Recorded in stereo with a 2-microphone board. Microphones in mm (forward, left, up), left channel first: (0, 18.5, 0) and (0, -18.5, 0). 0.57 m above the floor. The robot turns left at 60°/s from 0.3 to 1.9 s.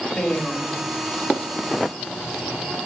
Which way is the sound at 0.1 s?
155° left.